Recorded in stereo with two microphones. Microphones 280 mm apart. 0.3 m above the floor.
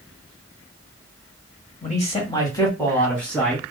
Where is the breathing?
I don't hear breathing.